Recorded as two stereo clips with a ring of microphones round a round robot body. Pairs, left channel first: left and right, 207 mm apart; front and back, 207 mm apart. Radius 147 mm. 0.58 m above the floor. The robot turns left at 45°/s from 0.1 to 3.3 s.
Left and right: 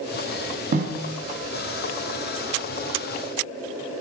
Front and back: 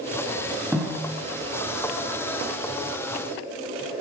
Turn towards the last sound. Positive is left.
turn(degrees=155)